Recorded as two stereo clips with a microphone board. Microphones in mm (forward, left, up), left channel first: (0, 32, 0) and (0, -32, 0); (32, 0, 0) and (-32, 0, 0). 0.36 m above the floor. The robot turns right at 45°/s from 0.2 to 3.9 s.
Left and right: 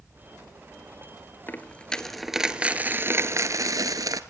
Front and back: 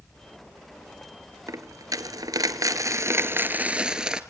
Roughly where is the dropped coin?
Behind left.